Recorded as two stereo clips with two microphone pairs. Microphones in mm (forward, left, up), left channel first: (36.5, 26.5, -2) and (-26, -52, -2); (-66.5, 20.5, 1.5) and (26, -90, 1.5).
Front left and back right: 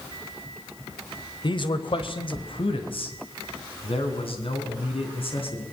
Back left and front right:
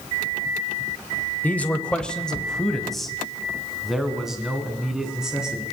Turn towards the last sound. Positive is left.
turn(degrees=35)